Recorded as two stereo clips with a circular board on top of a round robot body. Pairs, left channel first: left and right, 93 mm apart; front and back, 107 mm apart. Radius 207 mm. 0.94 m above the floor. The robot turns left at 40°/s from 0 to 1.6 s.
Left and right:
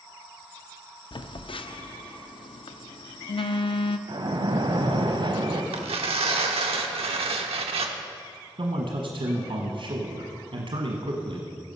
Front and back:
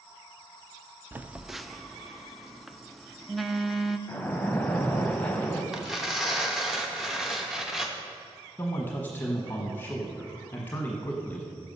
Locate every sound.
1.1 s a phone buzzing: 110° left, 0.6 m; by 4.0 s 90° left, 0.6 m
4.1 s a splash: 75° right, 1.2 m
5.7 s tearing paper: 95° right, 0.7 m
8.6 s a man speaking: 70° right, 1.1 m